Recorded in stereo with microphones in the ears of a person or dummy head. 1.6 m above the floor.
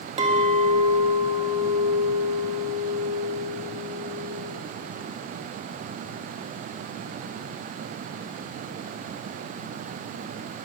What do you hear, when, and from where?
0.2 s a clink: 40° right (ahead or behind), 1.5 m